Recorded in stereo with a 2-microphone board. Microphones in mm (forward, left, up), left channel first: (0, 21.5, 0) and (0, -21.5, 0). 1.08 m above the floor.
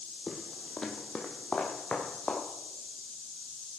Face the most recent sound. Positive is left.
turn(degrees=25)  # may be behind; listen again after turning